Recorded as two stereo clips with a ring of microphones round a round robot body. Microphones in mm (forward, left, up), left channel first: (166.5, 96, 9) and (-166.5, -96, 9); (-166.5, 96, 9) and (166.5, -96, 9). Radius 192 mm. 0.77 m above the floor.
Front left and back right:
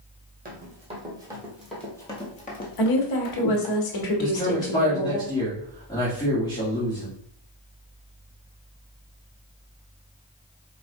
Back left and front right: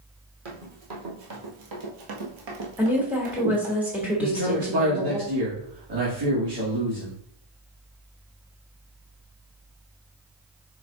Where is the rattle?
I don't hear a rattle.